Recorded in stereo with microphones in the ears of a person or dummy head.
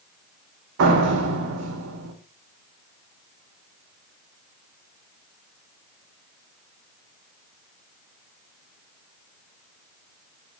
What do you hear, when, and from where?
0.8 s a door slam: 70° right (ahead or behind), 1.9 m